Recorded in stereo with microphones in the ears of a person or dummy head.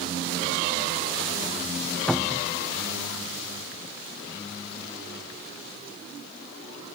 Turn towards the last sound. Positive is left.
turn(degrees=0)  # may be behind; listen again after turning